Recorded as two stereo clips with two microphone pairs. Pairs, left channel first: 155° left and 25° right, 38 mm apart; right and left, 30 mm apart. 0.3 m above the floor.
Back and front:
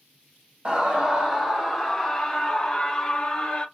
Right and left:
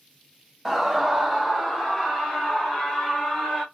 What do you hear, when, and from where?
0.7 s a scream: straight ahead, 1.4 m; by 3.6 s 145° right, 1.9 m